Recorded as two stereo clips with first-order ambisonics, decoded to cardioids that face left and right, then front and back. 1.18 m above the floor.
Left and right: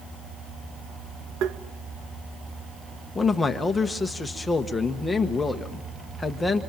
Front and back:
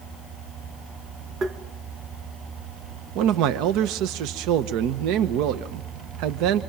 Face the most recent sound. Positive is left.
turn(degrees=170)